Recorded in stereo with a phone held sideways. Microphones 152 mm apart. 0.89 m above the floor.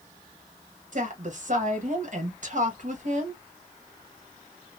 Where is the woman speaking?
55° right (ahead or behind), 1.1 m.